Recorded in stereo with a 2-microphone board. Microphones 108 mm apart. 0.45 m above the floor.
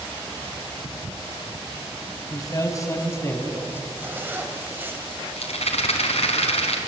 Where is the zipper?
20° right (ahead or behind), 2.5 m.